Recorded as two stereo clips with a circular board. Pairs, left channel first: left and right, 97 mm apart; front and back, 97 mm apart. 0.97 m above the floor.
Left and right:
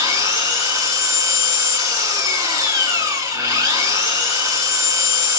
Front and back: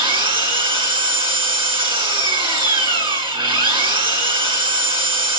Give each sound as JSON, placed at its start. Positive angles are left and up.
{"t": 0.0, "sound": "an engine running", "azimuth_deg": -150, "distance_m": 6.5}